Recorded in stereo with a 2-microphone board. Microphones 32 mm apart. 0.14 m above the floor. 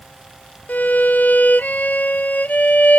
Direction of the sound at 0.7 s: 65° left (ahead or behind).